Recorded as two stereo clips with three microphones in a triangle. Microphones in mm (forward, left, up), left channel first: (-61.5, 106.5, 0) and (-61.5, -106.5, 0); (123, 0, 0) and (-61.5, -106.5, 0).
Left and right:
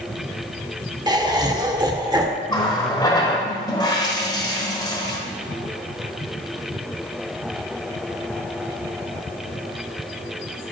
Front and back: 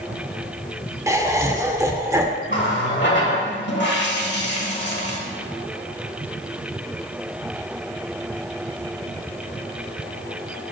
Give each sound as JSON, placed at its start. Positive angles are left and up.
{"t": 1.1, "sound": "laughter", "azimuth_deg": -105, "distance_m": 0.8}
{"t": 2.5, "sound": "a running tap", "azimuth_deg": 25, "distance_m": 1.2}